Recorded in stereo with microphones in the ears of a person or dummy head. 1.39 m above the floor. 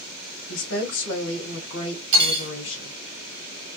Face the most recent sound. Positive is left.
turn(degrees=-65)  # may be behind; listen again after turning